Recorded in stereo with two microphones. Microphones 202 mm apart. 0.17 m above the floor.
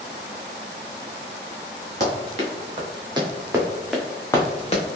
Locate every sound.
2.0 s running footsteps: 40° right (ahead or behind), 1.8 m; by 4.8 s 40° left (ahead or behind), 0.9 m